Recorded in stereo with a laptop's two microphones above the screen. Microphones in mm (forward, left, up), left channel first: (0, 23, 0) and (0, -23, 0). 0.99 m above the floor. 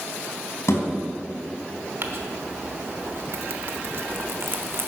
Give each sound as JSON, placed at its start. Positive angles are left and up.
{"t": 0.7, "sound": "a thud", "side_deg": 85, "distance_m": 4.0}
{"t": 2.0, "sound": "crumpling", "side_deg": -60, "distance_m": 1.0}